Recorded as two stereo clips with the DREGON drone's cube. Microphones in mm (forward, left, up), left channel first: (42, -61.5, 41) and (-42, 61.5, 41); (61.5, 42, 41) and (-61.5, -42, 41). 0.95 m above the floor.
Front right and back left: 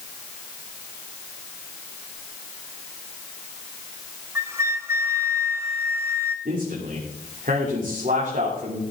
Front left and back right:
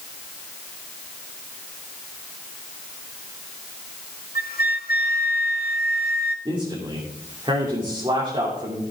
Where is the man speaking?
155° left, 3 m.